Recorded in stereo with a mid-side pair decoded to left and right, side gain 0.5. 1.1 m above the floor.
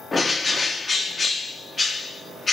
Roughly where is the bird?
Ahead left.